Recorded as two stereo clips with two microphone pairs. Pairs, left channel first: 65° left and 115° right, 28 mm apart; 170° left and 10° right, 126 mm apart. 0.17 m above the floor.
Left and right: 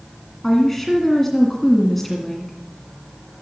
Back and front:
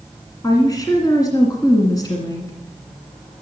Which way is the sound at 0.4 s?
140° left.